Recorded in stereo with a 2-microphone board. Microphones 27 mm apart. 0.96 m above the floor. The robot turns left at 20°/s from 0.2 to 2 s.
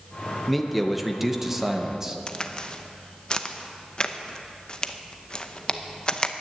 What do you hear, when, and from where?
0.5 s a man speaking: 5° left, 0.8 m; by 2.2 s 25° right, 0.8 m
2.3 s a crack: 30° left (ahead or behind), 0.6 m